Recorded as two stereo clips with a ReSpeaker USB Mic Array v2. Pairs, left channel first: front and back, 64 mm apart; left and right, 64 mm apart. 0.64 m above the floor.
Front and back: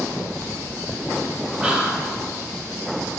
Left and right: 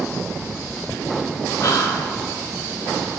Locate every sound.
1.6 s whispering: 95° left, 1.3 m